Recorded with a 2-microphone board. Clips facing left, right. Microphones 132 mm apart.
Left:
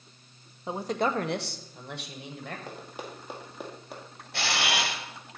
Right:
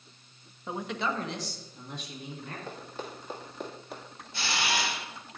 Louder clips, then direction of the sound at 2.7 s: Even; 15° left (ahead or behind).